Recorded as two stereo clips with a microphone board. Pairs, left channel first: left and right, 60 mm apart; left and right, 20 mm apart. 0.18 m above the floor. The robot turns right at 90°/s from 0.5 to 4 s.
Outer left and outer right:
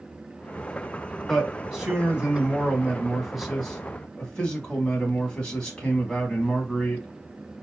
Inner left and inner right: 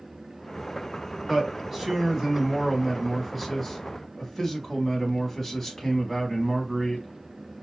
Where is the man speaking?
5° left (ahead or behind), 1.1 m; by 7.0 s 15° left (ahead or behind), 1.1 m.